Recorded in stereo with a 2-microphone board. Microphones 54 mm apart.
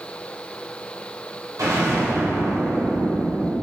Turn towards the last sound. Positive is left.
turn(degrees=-70)  # may be behind; listen again after turning